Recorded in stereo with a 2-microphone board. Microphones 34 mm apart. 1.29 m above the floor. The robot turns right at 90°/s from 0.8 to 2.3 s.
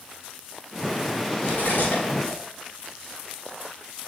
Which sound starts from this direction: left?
Cutlery clinking, at 1.4 s.